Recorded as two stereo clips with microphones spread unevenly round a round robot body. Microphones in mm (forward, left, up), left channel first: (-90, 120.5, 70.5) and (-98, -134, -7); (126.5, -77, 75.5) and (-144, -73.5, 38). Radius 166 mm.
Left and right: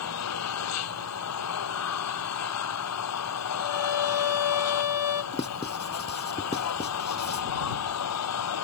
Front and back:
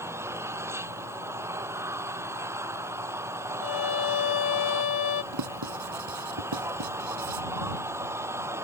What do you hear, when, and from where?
0.0 s an engine running: 95° left
3.6 s a violin: 50° left
5.3 s writing: 155° left